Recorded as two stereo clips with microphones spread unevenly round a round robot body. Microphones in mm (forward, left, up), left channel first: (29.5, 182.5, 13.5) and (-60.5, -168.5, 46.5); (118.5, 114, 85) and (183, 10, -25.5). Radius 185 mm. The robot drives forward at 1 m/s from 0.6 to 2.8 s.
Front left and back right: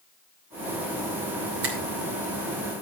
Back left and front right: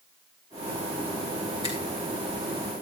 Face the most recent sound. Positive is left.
turn(degrees=-165)